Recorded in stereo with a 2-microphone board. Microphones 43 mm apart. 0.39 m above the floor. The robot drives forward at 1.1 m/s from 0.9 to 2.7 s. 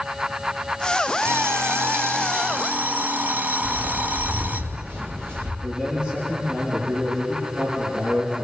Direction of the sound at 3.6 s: 50° right (ahead or behind).